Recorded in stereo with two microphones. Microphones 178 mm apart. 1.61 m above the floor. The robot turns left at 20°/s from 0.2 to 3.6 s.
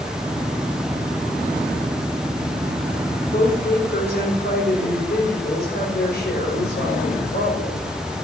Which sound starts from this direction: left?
A woman speaking, at 3.3 s.